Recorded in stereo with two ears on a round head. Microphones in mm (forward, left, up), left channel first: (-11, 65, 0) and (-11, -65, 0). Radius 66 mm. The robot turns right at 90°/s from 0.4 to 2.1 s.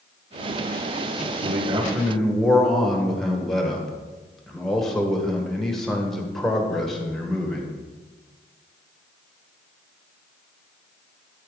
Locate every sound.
1.4 s a man speaking: 60° right, 1.1 m; by 7.8 s straight ahead, 1.1 m